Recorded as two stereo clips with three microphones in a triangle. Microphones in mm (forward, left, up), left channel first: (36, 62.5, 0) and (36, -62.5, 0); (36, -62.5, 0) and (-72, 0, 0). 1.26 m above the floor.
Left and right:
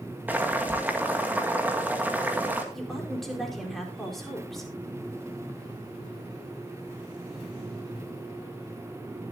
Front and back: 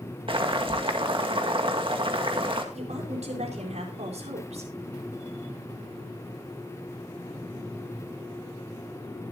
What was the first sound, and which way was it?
Boiling, 165° right.